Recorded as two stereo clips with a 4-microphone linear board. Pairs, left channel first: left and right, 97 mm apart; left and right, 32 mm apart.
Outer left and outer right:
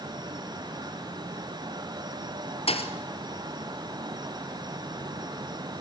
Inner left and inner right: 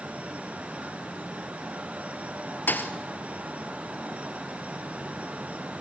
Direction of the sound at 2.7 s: 75° left (ahead or behind).